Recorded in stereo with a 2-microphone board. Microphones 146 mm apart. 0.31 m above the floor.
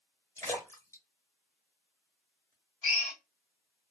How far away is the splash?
About 1.1 m.